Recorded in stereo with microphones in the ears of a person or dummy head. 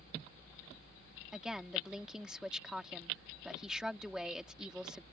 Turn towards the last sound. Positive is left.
turn(degrees=0)  # may be behind; listen again after turning